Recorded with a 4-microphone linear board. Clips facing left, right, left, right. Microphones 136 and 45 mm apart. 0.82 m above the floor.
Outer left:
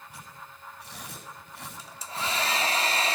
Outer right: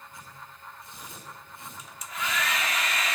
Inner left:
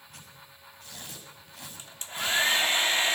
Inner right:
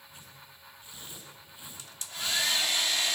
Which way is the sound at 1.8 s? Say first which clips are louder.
Outer left 1 dB, inner left 4 dB; 30° left (ahead or behind).